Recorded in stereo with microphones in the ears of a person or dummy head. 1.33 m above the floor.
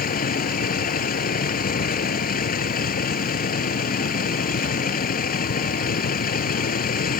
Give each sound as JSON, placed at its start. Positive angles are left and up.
{"t": 0.0, "sound": "a vehicle", "side_deg": 45}